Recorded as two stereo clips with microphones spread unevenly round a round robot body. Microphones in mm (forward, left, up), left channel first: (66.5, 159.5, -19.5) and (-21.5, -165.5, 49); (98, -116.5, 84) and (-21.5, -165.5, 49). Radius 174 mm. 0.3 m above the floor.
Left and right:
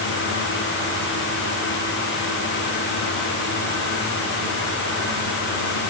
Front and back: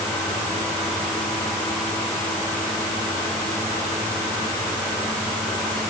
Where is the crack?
No crack in this recording.